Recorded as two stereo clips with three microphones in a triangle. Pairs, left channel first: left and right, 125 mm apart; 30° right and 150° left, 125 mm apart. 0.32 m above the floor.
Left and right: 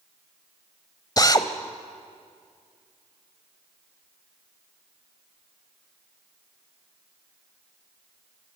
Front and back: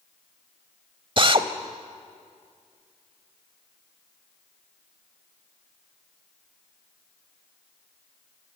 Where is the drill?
130° left, 1.0 m.